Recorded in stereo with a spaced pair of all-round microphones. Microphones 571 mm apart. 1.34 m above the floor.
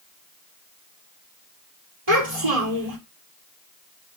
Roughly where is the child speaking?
Right.